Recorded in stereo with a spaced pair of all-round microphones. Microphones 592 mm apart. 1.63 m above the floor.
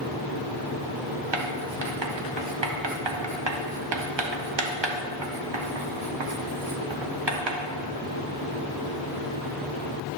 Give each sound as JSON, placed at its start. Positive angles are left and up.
{"t": 1.3, "sound": "writing", "side_deg": -45, "distance_m": 0.8}